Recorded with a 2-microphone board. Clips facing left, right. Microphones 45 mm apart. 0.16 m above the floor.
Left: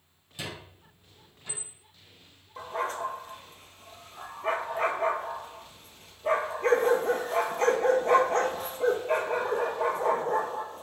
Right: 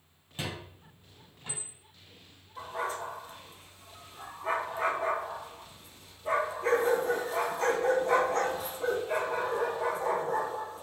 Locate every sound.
0.4 s a squeak: 30° right (ahead or behind), 2.5 m
2.6 s a dog barking: 50° left (ahead or behind), 1.2 m